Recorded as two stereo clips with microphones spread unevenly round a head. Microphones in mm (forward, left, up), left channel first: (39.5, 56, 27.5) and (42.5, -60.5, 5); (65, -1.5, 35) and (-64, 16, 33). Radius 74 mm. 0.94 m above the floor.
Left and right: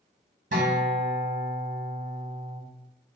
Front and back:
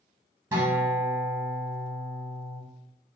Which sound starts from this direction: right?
A guitar, at 0.5 s.